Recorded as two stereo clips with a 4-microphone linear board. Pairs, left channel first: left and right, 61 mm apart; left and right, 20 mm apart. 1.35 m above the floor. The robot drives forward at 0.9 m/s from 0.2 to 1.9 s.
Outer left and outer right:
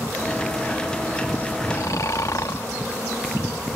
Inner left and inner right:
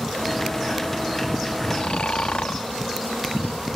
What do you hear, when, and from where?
1.7 s snoring: 65° left (ahead or behind); by 2.7 s 70° left (ahead or behind)